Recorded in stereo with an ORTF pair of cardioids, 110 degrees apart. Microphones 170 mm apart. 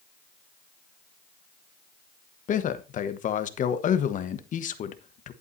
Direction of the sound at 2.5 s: 50° left.